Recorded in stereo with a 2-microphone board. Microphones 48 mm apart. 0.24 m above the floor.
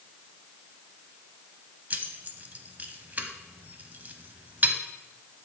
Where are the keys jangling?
35° right (ahead or behind), 0.8 m.